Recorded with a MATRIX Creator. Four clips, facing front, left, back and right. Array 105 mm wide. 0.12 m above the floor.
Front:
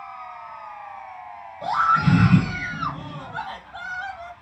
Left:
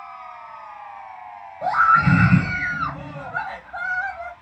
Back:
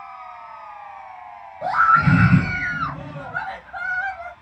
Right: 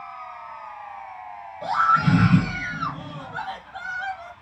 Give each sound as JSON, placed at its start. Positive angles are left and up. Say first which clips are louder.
{"t": 1.6, "sound": "a scream", "louder": "left 3 dB, back 3 dB", "azimuth_deg": 145, "distance_m": 2.0}